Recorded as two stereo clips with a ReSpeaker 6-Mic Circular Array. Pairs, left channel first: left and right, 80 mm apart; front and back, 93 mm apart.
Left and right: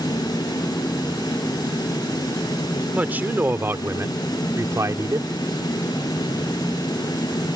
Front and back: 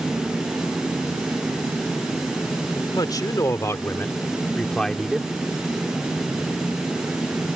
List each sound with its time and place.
2.9 s a man speaking: 25° right; by 5.3 s 95° right